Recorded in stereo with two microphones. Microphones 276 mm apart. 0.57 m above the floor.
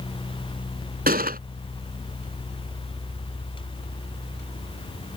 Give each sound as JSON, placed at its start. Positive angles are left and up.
{"t": 1.1, "sound": "a gunshot", "side_deg": -35}